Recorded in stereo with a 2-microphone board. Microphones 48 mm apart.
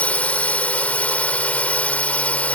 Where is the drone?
30° left (ahead or behind).